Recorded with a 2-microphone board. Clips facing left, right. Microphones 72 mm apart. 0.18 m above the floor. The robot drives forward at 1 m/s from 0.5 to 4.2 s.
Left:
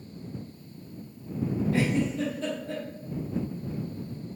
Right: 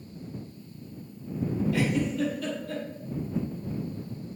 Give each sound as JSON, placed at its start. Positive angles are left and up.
{"t": 1.7, "sound": "a giggle", "side_deg": 35, "distance_m": 2.0}